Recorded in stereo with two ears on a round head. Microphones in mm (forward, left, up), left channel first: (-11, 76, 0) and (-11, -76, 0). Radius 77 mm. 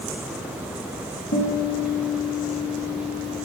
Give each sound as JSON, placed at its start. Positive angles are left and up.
{"t": 1.3, "sound": "a guitar", "side_deg": 60, "distance_m": 1.1}